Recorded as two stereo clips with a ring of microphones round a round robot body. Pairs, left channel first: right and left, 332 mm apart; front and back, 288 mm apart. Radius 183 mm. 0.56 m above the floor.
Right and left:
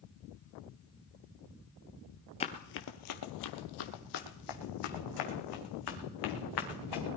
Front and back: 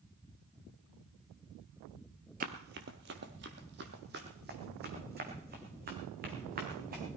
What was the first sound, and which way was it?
Running footsteps, 150° right.